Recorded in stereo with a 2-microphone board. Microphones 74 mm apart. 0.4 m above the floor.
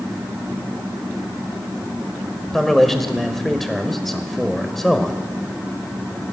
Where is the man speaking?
5° left (ahead or behind), 1.7 m.